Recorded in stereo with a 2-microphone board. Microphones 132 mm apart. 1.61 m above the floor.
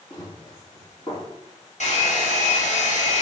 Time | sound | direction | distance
0.1 | running footsteps | 30° left (ahead or behind) | 3 m
1.8 | a hair dryer | 60° left (ahead or behind) | 2.0 m